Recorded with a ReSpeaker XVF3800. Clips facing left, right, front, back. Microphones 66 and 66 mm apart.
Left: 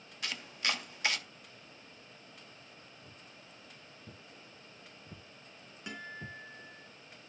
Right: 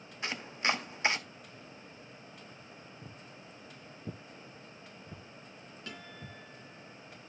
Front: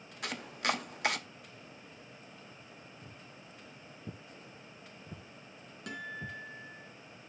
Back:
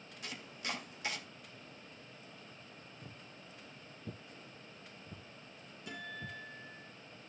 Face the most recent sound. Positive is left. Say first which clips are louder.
# left 5 dB, front 4 dB
turn(degrees=20)